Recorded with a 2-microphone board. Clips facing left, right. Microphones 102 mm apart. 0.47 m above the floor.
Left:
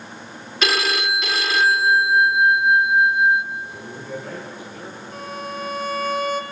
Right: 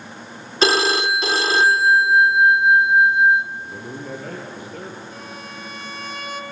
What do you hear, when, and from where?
0.6 s a phone ringing: 30° right (ahead or behind), 0.8 m
3.5 s a man speaking: 55° right (ahead or behind), 7.5 m
5.1 s a violin: 45° left (ahead or behind), 1.9 m